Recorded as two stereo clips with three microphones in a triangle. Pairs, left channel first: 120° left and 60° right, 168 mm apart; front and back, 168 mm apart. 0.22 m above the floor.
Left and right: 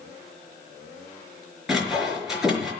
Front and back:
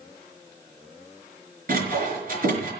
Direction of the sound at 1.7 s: 145° right.